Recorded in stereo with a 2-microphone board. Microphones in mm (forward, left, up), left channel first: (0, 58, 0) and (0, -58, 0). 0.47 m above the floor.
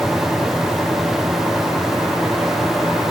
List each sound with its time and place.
Only background noise.